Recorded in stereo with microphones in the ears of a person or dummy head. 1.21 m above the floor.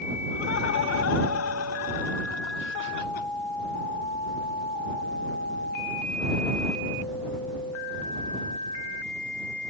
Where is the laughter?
70° left (ahead or behind); by 3.3 s 50° left (ahead or behind).